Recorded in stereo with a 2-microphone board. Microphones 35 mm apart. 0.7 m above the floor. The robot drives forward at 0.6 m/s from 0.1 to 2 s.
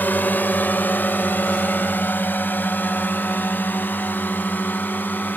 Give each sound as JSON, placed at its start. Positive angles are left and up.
{"t": 0.0, "sound": "a drone", "side_deg": 65}